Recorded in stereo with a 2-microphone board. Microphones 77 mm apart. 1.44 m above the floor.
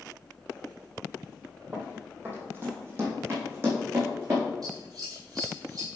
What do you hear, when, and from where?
1.7 s running footsteps: 20° right (ahead or behind), 2.5 m; by 4.5 s 35° right (ahead or behind), 6 m
4.6 s scissors: 50° right (ahead or behind), 4 m